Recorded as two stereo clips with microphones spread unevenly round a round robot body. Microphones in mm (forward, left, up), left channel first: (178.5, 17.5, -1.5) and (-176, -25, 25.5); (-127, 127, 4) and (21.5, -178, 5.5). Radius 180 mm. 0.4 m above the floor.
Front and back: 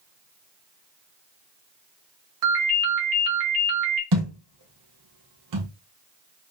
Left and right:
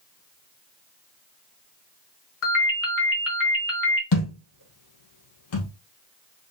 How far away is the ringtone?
About 1.6 m.